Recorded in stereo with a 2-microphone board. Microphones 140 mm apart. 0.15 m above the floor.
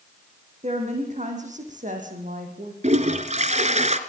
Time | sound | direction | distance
0.6 | a woman speaking | 50° right (ahead or behind) | 7 m
2.8 | a toilet flushing | 55° right (ahead or behind) | 1.7 m